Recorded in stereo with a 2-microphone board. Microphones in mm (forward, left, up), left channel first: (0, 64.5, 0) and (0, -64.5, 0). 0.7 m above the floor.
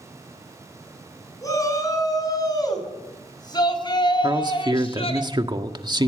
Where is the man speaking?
35° right (ahead or behind), 1.6 m.